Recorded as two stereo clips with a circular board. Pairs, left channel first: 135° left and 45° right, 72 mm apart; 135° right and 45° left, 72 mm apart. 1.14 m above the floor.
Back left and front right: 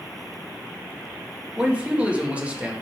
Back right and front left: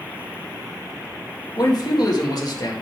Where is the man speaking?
115° right, 1.8 m.